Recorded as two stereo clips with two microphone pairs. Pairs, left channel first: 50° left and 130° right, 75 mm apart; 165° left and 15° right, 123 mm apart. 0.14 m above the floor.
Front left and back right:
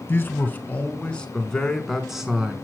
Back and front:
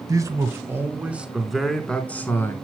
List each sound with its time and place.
0.1 s a man speaking: 15° left, 1.8 m; by 2.5 s 165° left, 1.5 m